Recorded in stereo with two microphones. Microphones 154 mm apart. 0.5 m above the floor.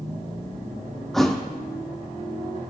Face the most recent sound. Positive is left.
turn(degrees=0)  # may be behind; listen again after turning